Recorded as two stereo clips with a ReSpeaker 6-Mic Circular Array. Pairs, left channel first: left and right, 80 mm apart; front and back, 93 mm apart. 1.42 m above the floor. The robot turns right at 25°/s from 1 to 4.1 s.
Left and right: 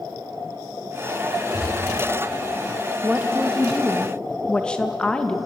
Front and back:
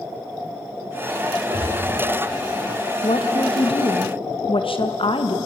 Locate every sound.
1.5 s a gunshot: straight behind, 7.5 m; by 2.0 s 165° right, 7.5 m
3.0 s a woman speaking: 15° right, 2 m; by 5.4 s 10° left, 2 m